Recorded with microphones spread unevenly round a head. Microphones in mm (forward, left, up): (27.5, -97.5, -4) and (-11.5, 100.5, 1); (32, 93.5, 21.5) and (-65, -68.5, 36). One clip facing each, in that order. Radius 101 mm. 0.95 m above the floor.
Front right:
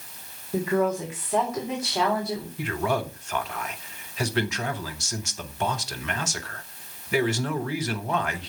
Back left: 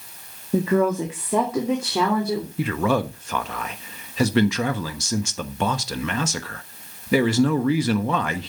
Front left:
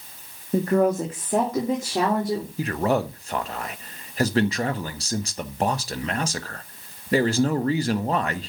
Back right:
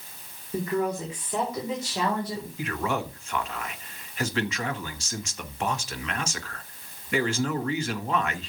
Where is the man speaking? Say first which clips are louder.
Back left 5 dB, front left 6 dB; 105° left, 1.3 m.